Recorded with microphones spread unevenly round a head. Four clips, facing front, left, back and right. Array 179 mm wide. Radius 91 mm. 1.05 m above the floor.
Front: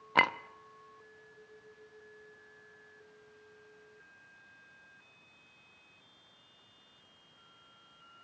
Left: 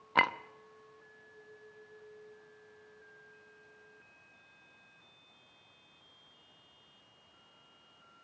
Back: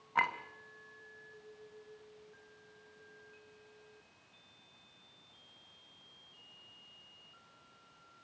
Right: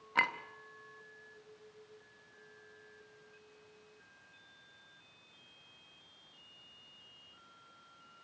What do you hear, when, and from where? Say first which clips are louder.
0.1 s a clink: left 5 dB, front 4 dB; 30° left, 0.9 m